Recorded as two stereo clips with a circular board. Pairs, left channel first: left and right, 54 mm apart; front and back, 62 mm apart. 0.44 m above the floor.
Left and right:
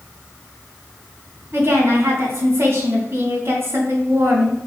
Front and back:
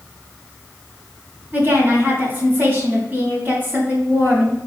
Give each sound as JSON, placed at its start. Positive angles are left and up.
{"t": 1.5, "sound": "a woman speaking", "azimuth_deg": -125, "distance_m": 3.0}